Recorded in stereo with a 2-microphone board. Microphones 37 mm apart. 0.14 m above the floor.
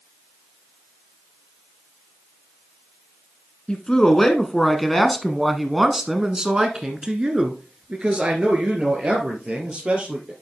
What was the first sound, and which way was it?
A man speaking, 25° left (ahead or behind).